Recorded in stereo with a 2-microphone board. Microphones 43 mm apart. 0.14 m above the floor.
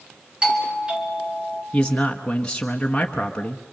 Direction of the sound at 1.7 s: 20° left (ahead or behind).